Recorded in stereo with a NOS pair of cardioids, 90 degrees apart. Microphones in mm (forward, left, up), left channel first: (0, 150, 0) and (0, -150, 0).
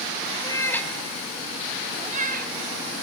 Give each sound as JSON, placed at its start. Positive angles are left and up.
{"t": 0.4, "sound": "a cat meowing", "azimuth_deg": 15, "distance_m": 1.7}